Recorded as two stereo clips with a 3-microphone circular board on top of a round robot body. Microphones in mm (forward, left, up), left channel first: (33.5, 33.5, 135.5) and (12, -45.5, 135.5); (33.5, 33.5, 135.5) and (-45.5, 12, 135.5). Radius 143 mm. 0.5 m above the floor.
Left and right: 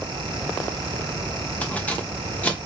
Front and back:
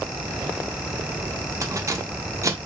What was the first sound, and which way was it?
Keys jangling, 145° left.